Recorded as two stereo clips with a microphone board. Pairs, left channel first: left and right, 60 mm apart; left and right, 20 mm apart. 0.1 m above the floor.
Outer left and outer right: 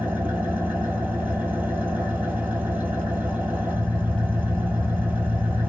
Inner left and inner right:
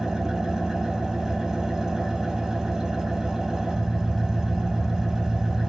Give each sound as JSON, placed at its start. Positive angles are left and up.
{"t": 0.0, "sound": "an engine running", "side_deg": -30, "distance_m": 0.9}